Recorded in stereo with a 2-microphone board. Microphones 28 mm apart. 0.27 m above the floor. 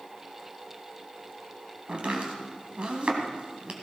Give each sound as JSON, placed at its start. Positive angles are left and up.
{"t": 1.9, "sound": "chopping", "side_deg": -40, "distance_m": 2.5}